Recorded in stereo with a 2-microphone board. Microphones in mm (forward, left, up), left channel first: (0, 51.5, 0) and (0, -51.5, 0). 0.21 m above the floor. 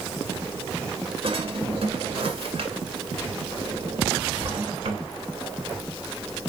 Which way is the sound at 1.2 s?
65° right (ahead or behind).